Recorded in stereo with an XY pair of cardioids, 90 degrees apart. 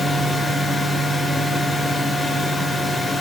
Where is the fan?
20° left, 1.9 m.